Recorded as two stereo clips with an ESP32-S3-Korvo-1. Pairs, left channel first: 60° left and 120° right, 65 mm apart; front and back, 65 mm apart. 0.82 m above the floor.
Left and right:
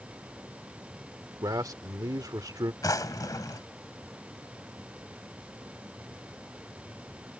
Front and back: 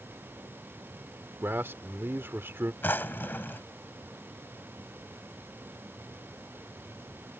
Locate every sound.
1.4 s a man speaking: 125° right
2.8 s a drawer: 55° left